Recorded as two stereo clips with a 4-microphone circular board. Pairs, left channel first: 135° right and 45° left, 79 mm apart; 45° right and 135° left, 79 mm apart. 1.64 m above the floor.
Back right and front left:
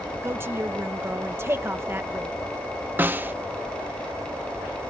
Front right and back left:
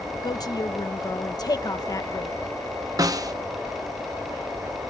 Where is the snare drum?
105° left.